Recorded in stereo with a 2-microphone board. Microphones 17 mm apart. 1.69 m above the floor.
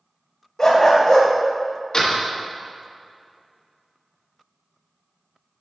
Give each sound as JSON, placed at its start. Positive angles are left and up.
{"t": 0.6, "sound": "a dog barking", "side_deg": 30, "distance_m": 1.6}
{"t": 1.9, "sound": "a door slam", "side_deg": 40, "distance_m": 1.2}